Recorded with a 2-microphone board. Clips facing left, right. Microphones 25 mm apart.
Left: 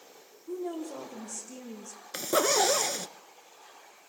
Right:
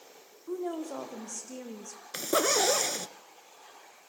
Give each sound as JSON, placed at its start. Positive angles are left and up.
{"t": 0.5, "sound": "a woman speaking", "side_deg": -50, "distance_m": 7.0}
{"t": 2.1, "sound": "a zipper", "side_deg": 0, "distance_m": 1.0}